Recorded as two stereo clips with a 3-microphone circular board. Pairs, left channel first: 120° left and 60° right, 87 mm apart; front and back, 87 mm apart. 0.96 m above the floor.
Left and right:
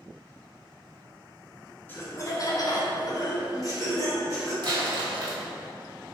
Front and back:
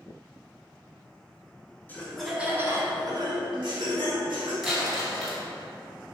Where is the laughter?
60° left, 0.6 m; by 4.5 s 170° left, 1.5 m.